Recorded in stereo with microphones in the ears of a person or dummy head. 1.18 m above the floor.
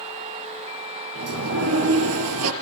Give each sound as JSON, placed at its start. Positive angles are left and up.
{"t": 1.1, "sound": "a sliding door", "side_deg": -75, "distance_m": 4.0}